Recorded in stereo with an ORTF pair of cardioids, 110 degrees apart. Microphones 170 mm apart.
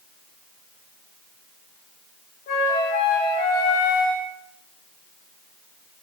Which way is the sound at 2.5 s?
65° left.